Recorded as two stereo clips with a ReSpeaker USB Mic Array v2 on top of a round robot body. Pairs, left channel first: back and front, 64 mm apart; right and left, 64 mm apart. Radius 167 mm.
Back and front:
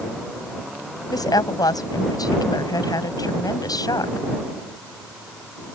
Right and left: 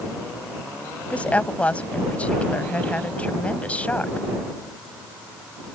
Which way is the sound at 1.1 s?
160° right.